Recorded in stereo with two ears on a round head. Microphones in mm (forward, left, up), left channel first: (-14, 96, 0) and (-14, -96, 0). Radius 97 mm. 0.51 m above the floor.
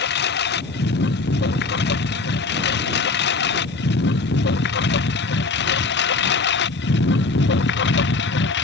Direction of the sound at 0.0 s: 55° left (ahead or behind).